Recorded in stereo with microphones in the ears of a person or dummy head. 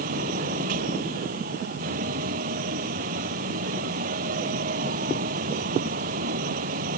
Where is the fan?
45° right (ahead or behind).